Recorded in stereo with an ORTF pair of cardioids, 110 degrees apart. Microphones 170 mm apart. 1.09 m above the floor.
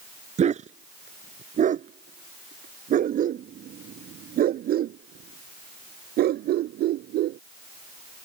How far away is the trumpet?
I don't hear a trumpet.